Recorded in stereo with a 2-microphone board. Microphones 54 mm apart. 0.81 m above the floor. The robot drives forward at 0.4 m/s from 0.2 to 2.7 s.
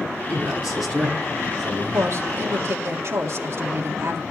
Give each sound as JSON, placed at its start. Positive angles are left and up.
{"t": 0.3, "sound": "a man speaking", "side_deg": 0, "distance_m": 8.5}
{"t": 1.9, "sound": "a woman speaking", "side_deg": -60, "distance_m": 1.9}